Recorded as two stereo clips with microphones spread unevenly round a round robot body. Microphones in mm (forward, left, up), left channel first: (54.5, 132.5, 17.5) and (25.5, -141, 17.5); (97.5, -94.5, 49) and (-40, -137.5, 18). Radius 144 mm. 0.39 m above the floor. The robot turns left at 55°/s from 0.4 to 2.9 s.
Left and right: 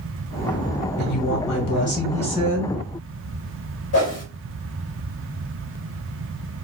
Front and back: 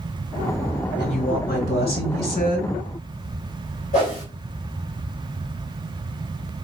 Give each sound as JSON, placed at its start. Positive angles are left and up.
{"t": 1.0, "sound": "a woman speaking", "azimuth_deg": 85, "distance_m": 2.5}
{"t": 3.9, "sound": "a whoosh", "azimuth_deg": 65, "distance_m": 2.0}